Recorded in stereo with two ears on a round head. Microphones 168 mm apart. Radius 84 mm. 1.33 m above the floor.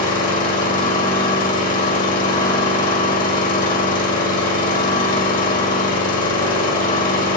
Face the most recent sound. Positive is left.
turn(degrees=45)  # may be behind; listen again after turning